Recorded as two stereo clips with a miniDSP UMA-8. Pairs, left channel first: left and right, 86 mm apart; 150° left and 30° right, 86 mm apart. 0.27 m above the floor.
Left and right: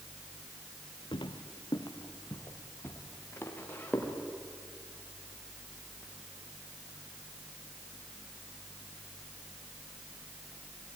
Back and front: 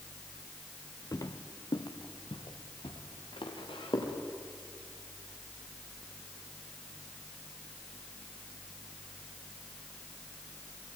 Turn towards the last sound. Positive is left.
turn(degrees=160)